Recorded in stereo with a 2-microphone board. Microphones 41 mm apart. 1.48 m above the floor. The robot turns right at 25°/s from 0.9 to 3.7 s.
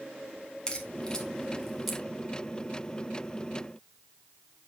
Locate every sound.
0.7 s a crack: 25° left (ahead or behind), 1.5 m; by 2.0 s 5° right (ahead or behind), 1.5 m